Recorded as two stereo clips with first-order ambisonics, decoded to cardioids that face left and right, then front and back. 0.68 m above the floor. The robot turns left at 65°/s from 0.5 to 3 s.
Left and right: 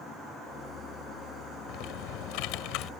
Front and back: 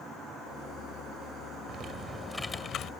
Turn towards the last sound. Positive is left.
turn(degrees=45)